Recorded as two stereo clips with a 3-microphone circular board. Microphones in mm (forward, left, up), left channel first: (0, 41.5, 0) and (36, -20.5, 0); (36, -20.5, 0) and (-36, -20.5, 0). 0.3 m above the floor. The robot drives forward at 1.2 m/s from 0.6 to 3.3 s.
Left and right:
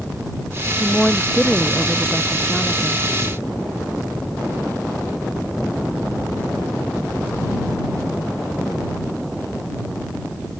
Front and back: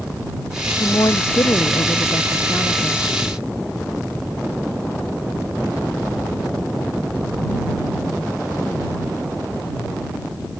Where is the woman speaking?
30° left; by 3.1 s 35° left.